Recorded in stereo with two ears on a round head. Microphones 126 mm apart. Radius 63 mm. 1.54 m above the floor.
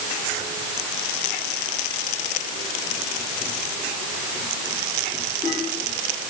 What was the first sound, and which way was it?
Only background noise.